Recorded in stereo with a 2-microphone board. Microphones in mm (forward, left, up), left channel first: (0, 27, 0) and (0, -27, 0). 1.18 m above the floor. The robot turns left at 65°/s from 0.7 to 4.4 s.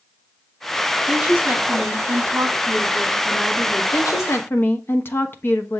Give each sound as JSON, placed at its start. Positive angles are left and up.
{"t": 1.1, "sound": "a woman speaking", "azimuth_deg": -15, "distance_m": 2.5}
{"t": 3.9, "sound": "a woman speaking", "azimuth_deg": 75, "distance_m": 1.1}